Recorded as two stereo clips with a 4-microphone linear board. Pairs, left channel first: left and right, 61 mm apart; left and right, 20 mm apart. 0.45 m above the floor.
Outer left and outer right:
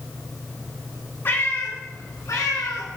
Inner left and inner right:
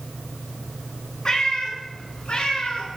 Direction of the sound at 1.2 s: 35° left (ahead or behind).